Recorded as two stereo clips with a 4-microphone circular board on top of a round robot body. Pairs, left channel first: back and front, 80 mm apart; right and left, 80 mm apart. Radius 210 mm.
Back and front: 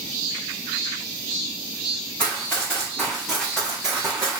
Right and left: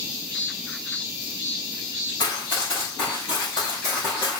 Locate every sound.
2.2 s running footsteps: 120° right, 1.5 m; by 4.4 s 50° right, 1.4 m